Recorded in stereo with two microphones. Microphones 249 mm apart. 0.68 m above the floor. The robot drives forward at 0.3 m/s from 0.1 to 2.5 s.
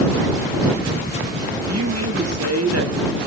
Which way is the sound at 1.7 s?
80° right.